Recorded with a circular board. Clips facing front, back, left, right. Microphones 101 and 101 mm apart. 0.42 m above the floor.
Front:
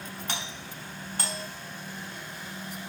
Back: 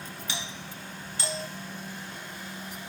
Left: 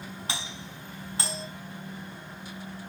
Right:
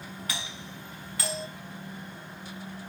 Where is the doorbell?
30° left, 6 m.